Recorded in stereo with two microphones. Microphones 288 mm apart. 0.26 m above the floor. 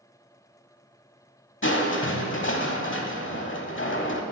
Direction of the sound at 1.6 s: 45° left (ahead or behind).